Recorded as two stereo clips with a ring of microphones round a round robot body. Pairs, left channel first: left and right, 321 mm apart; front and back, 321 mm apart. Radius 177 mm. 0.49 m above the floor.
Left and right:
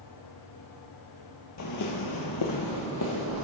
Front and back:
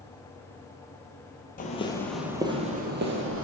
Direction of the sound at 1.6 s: 60° left.